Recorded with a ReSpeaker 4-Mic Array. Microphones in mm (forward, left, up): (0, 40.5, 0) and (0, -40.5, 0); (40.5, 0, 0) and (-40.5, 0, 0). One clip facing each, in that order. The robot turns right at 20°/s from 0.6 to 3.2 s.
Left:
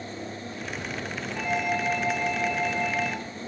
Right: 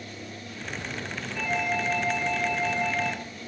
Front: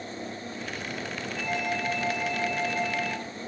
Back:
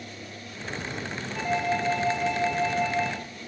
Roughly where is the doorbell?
Behind.